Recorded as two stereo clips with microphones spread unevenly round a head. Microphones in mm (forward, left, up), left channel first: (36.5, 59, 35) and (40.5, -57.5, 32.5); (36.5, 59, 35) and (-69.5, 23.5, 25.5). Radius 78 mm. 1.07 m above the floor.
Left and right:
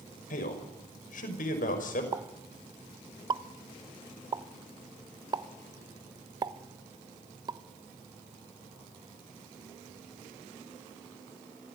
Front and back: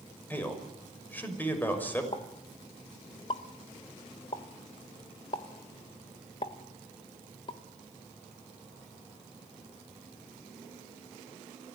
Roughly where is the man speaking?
Left.